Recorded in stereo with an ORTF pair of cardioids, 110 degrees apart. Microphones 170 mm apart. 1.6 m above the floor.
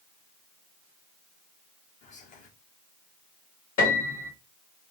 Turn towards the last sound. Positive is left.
turn(degrees=55)